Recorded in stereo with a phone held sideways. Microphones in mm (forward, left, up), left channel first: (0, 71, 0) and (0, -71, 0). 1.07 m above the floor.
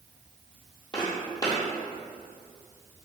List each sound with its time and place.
0.9 s footsteps: 30° left (ahead or behind), 1.3 m